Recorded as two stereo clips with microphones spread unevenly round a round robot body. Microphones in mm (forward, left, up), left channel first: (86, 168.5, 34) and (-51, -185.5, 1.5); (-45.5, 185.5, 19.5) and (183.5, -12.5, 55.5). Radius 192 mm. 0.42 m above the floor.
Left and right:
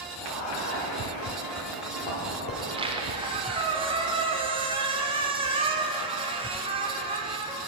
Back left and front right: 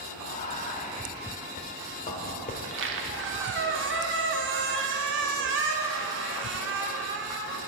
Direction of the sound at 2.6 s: 55° right.